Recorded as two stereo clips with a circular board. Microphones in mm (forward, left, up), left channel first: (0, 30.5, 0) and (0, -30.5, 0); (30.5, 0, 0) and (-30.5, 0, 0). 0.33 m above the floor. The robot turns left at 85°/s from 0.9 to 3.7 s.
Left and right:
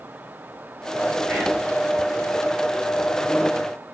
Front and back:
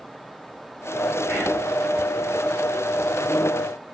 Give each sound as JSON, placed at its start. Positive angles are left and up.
{"t": 1.3, "sound": "whispering", "azimuth_deg": -25, "distance_m": 1.9}